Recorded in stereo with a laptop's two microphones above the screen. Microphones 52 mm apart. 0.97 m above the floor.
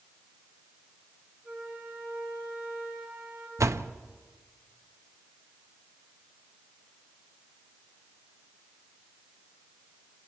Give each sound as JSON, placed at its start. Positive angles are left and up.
{"t": 1.4, "sound": "a flute", "side_deg": -15, "distance_m": 6.0}
{"t": 3.6, "sound": "a door slam", "side_deg": -75, "distance_m": 0.7}